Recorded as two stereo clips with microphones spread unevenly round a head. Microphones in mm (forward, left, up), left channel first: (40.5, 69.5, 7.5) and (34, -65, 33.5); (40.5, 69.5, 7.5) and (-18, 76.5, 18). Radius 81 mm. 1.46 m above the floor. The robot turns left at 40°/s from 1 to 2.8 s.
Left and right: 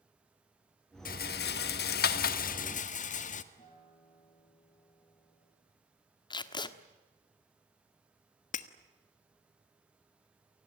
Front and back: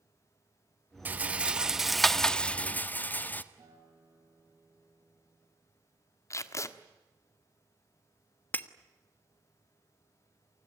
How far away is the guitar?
About 8 m.